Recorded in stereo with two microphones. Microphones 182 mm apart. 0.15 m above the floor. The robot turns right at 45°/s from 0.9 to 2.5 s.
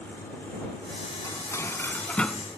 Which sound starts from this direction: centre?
Dishes clattering, at 1.2 s.